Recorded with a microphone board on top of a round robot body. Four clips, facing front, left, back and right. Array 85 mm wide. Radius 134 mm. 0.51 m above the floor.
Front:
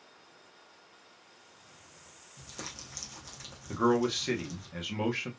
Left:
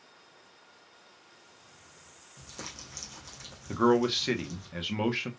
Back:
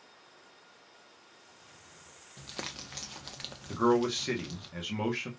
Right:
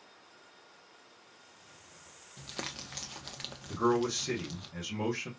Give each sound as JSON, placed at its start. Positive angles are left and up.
{"t": 2.4, "sound": "crumpling", "azimuth_deg": -135, "distance_m": 0.9}
{"t": 3.7, "sound": "a man speaking", "azimuth_deg": 85, "distance_m": 1.0}